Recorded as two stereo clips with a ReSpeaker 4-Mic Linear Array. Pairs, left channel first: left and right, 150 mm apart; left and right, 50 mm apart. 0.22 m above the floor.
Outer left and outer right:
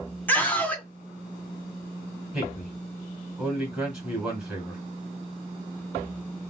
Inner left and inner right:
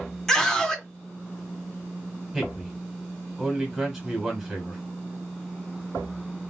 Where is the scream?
10° left (ahead or behind), 1.9 m.